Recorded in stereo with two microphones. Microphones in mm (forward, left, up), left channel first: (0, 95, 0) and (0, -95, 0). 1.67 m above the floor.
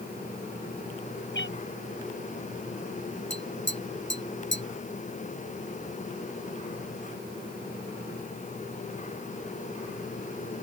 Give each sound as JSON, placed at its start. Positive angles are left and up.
{"t": 1.3, "sound": "a cat meowing", "side_deg": 75}
{"t": 3.3, "sound": "tapping", "side_deg": 80}